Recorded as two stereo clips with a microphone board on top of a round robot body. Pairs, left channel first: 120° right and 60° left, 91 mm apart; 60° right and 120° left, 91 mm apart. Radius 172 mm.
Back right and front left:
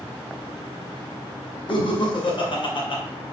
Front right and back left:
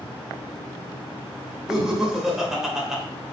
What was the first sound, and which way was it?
Laughter, 155° right.